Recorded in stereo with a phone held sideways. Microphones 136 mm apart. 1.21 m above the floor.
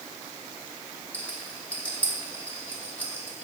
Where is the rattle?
10° left (ahead or behind), 1.4 m.